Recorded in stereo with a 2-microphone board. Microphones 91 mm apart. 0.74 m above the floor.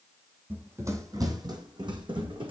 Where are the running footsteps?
20° right (ahead or behind), 1.2 m; by 2.5 s 65° right (ahead or behind), 1.8 m.